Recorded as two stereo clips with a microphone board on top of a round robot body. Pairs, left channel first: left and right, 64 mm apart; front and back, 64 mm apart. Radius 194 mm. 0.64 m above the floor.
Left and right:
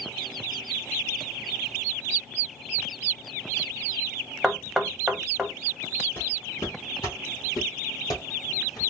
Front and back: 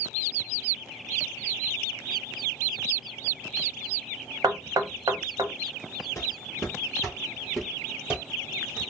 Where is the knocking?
175° right, 1.1 m.